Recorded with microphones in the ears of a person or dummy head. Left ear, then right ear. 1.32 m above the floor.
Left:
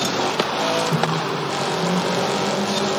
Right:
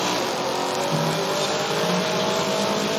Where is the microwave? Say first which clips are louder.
Left 1 dB; 75° left (ahead or behind), 1.1 m.